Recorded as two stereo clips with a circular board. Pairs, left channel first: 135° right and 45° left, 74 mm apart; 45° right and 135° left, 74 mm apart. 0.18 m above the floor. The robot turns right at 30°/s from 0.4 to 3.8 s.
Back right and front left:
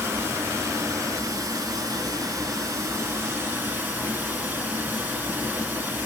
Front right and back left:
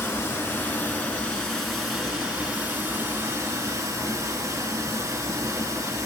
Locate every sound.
0.0 s running water: 5° left, 1.3 m; by 6.1 s 105° left, 1.3 m